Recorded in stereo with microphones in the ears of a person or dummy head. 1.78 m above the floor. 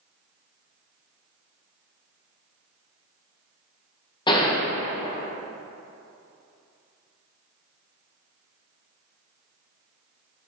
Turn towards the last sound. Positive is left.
turn(degrees=25)  # may be behind; listen again after turning